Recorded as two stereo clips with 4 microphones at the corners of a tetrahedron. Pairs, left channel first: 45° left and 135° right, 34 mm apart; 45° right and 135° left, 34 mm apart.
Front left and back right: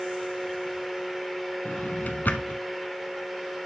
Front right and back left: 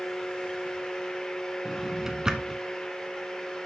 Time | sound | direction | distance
1.6 | a drawer | 65° left | 1.1 m